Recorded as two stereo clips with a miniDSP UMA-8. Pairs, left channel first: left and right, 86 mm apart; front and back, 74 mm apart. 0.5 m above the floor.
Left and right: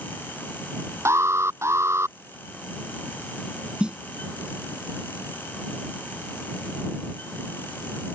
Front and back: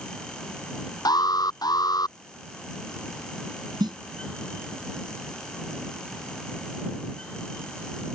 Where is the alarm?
30° right.